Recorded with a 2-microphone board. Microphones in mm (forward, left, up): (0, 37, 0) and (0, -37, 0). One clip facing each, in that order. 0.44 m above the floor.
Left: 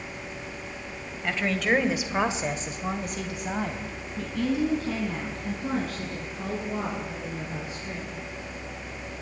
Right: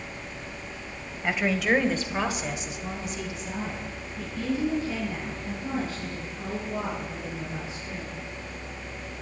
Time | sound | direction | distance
1.2 | a woman speaking | 15° right (ahead or behind) | 2 m